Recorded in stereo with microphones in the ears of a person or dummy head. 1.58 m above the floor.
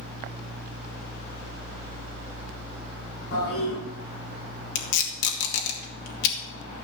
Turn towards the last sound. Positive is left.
turn(degrees=60)  # may be behind; listen again after turning